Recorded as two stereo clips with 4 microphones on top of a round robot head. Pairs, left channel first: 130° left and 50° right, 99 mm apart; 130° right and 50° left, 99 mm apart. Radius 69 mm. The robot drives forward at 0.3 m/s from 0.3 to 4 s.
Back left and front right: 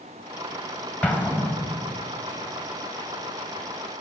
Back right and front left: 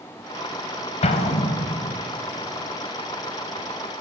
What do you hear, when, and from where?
1.0 s an explosion: 155° right, 1.1 m; by 2.0 s 160° right, 1.3 m